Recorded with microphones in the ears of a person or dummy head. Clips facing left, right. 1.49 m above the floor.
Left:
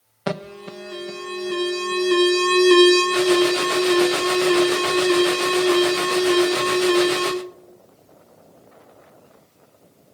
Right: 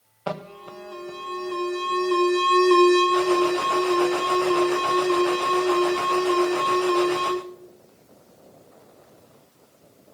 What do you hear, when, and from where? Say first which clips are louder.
0.3 s an alarm: left 4 dB; 25° left (ahead or behind), 0.6 m